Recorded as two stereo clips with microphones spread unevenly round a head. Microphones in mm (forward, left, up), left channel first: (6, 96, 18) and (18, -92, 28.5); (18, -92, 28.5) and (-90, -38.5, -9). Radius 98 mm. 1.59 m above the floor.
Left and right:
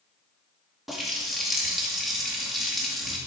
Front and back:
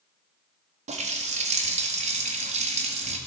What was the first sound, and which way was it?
A running tap, 175° right.